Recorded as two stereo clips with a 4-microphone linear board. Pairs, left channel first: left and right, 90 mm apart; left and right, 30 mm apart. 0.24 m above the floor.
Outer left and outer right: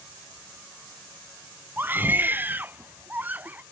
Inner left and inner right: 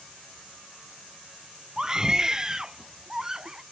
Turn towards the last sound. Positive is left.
turn(degrees=-20)  # may be behind; listen again after turning